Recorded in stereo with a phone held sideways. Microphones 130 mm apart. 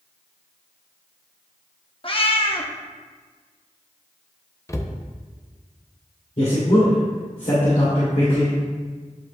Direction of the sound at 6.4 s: 70° left (ahead or behind).